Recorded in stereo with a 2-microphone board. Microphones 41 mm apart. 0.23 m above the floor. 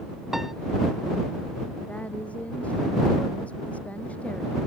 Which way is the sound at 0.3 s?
10° right (ahead or behind).